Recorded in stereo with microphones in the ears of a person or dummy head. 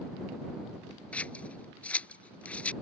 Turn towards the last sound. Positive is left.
turn(degrees=5)  # may be behind; listen again after turning